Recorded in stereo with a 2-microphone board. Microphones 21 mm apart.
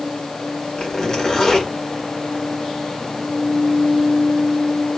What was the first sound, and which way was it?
A zipper, 30° left (ahead or behind).